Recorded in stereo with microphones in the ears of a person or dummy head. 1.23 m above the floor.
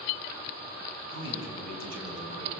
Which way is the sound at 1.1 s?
85° right.